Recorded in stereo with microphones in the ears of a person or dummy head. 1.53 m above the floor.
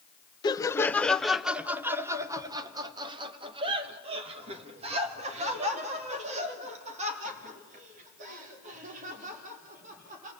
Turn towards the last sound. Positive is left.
turn(degrees=-45)  # may be behind; listen again after turning